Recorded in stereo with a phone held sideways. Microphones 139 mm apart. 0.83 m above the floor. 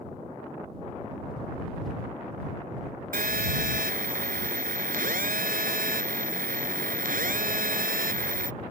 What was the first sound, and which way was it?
A phone buzzing, 90° right.